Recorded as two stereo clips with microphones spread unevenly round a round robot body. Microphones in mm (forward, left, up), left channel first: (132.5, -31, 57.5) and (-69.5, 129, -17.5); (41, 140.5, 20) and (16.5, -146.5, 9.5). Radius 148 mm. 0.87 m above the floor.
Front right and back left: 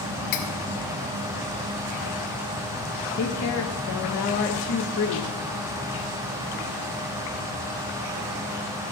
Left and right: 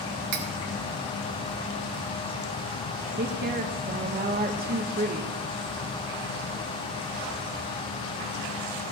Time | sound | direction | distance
0.3 | cutlery clinking | 55° right | 1.5 m
3.2 | a woman speaking | 70° right | 0.8 m